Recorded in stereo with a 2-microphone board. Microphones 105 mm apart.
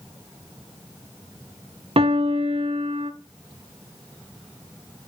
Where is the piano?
60° right (ahead or behind), 0.5 m.